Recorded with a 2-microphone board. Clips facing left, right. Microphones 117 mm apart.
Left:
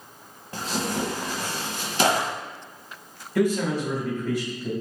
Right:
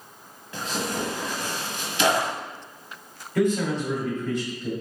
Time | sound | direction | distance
0.5 | tearing paper | 40° left (ahead or behind) | 1.0 m
3.4 | a man speaking | 10° left (ahead or behind) | 2 m